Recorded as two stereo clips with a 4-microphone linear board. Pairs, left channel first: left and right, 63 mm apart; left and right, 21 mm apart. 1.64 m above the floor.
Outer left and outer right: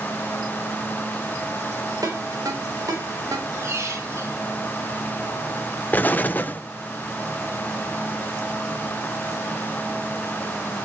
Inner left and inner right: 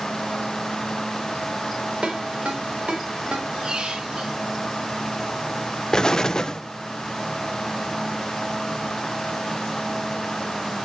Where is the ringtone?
70° right (ahead or behind), 4 m.